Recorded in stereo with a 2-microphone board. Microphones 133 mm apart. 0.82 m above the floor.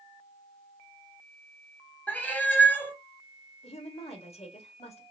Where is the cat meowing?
15° left (ahead or behind), 0.8 m.